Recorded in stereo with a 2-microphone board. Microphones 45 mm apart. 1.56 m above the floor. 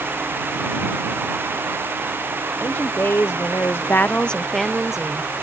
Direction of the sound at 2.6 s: 60° left (ahead or behind).